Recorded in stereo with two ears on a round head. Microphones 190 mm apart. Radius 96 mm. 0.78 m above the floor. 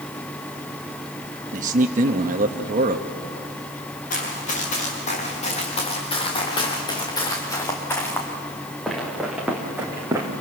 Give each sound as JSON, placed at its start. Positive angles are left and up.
{"t": 1.5, "sound": "a man speaking", "side_deg": -40, "distance_m": 1.1}
{"t": 4.1, "sound": "running footsteps", "side_deg": 40, "distance_m": 6.0}